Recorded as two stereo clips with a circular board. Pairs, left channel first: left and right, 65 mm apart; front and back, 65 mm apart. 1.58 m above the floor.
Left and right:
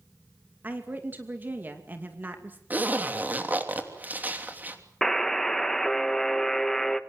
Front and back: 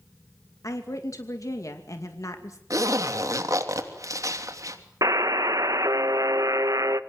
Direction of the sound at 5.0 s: 175° left.